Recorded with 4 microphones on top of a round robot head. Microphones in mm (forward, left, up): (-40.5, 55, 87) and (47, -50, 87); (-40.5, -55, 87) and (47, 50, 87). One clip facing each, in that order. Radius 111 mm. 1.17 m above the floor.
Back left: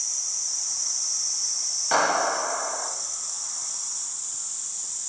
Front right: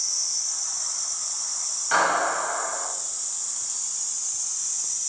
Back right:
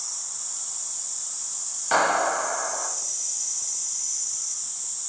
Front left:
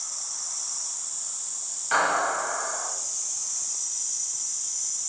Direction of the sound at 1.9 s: Straight behind.